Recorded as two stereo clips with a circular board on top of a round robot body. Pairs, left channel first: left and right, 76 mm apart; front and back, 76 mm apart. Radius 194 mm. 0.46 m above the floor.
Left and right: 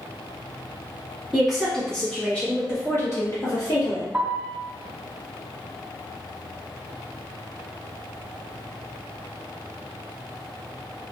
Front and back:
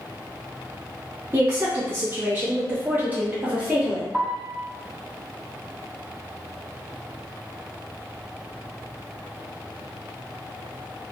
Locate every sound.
1.3 s a woman speaking: 170° right, 1.3 m; by 4.0 s 110° left, 1.7 m
4.1 s a piano: 150° right, 1.1 m